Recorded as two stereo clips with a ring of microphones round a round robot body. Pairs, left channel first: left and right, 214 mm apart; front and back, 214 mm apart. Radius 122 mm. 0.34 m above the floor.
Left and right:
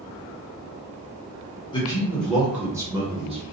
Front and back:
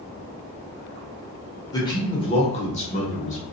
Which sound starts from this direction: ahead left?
A man speaking, at 1.7 s.